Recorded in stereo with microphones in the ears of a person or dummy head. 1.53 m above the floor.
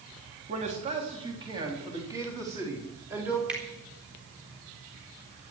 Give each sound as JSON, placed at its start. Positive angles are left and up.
{"t": 0.5, "sound": "a man speaking", "side_deg": -40, "distance_m": 3.5}
{"t": 3.5, "sound": "a finger snap", "side_deg": -5, "distance_m": 4.0}